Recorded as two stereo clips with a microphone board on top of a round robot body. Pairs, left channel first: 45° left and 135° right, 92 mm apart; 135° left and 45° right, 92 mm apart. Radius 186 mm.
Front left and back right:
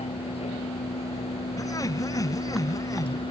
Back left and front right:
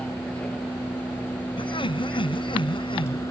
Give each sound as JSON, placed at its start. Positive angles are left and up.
{"t": 0.0, "sound": "a vehicle", "azimuth_deg": 55}
{"t": 1.6, "sound": "laughter", "azimuth_deg": 100}